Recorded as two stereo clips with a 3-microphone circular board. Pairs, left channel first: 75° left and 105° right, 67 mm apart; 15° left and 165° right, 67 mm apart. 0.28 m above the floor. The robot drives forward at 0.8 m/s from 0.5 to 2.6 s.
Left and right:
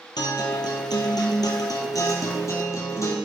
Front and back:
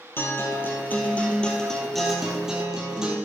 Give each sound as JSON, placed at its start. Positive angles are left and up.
{"t": 0.2, "sound": "a guitar", "azimuth_deg": 75, "distance_m": 2.0}